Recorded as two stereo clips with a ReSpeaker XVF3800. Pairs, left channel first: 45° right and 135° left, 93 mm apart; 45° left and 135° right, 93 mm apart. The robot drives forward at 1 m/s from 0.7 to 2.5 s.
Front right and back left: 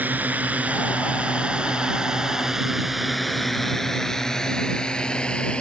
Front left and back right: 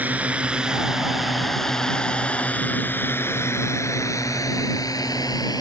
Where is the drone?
175° left; by 5.6 s 30° left.